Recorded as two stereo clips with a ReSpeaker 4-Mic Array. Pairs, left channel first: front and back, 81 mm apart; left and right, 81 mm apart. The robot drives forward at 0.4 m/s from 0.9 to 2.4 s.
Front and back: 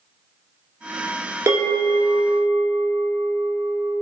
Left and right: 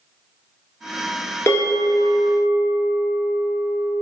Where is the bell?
135° left, 0.8 m; by 3.9 s 150° left, 1.0 m.